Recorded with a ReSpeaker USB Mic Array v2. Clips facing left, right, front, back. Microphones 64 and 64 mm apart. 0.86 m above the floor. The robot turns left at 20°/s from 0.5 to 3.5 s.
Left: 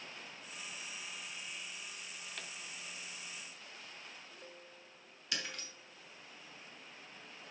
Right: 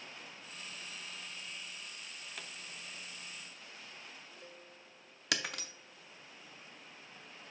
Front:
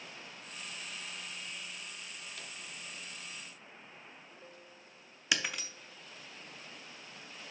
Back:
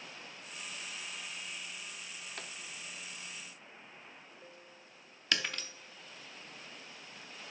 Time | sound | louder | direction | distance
2.4 | a pop | even, back 2 dB | 175° right | 0.6 m
5.3 | breaking glass | right 5 dB, front 1 dB | 80° right | 0.6 m